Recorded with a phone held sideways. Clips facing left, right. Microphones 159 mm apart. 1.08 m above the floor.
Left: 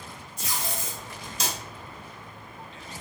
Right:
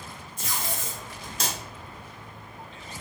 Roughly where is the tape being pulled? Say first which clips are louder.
Even; right.